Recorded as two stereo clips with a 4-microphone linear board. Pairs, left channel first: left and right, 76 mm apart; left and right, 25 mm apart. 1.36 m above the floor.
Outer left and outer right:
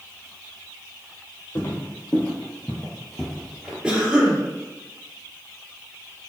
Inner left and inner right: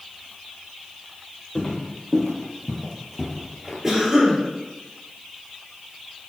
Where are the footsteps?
35° left (ahead or behind), 2 m; by 3.7 s 10° right (ahead or behind), 1.7 m.